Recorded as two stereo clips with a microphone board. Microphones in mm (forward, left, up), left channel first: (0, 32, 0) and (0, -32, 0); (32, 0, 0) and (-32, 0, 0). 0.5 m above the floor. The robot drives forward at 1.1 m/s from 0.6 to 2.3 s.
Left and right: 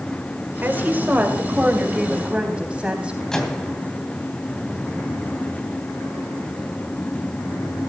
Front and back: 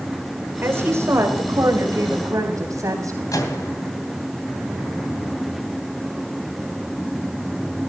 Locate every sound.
0.6 s a woman speaking: 140° right, 1.8 m; by 3.2 s 160° right, 3.5 m
3.3 s a microwave: 10° left, 2.5 m